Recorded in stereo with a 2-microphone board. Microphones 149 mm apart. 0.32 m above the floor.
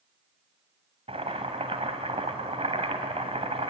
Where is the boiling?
45° right (ahead or behind), 1.9 m.